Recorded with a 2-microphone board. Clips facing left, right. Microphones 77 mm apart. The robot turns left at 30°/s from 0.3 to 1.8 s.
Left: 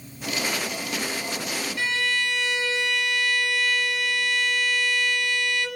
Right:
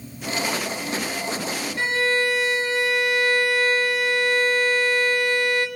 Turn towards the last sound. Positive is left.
turn(degrees=-35)  # may be behind; listen again after turning